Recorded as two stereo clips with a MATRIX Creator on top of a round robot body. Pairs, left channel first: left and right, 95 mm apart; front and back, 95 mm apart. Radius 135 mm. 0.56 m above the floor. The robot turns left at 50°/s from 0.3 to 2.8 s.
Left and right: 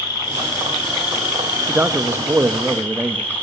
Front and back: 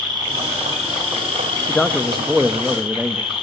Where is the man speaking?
65° right, 0.7 m; by 3.3 s 120° right, 0.7 m.